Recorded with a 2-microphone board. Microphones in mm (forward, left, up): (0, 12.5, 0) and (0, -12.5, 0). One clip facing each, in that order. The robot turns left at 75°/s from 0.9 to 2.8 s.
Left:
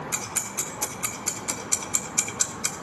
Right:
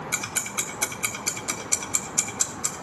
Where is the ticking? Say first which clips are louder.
Right 4 dB; 60° right (ahead or behind), 1.0 m; by 2.7 s 45° left (ahead or behind), 1.0 m.